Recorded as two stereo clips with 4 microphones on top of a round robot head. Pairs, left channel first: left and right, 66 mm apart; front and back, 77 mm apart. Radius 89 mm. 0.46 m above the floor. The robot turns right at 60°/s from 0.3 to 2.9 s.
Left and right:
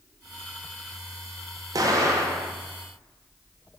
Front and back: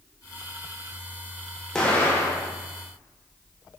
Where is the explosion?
80° right, 0.7 m; by 2.5 s 35° right, 0.7 m.